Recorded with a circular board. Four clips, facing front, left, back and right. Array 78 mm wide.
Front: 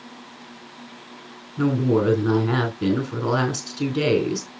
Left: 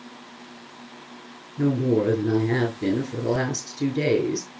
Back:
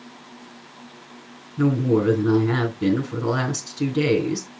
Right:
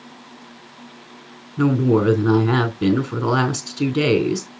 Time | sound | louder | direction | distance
1.6 | a woman speaking | right 4 dB, even | 80° right | 3.5 m